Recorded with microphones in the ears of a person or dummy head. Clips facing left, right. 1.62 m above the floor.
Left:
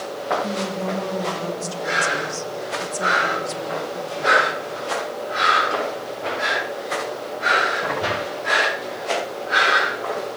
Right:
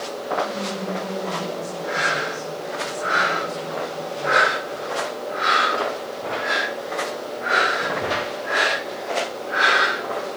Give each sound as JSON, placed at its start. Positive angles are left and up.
{"t": 0.4, "sound": "a woman speaking", "side_deg": 85, "distance_m": 3.5}